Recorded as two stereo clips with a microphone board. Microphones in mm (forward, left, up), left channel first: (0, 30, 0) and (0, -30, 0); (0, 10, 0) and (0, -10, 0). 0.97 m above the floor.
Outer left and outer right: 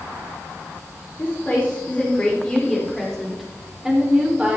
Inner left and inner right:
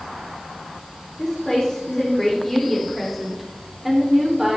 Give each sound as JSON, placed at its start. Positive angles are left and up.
{"t": 1.2, "sound": "a woman speaking", "side_deg": 35, "distance_m": 3.0}